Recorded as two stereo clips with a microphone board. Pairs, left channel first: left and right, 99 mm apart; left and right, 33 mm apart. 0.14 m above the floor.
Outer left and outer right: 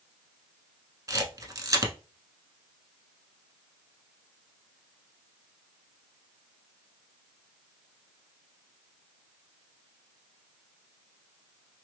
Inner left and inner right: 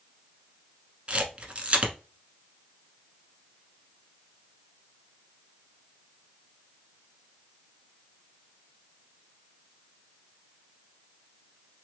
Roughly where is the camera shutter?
Right.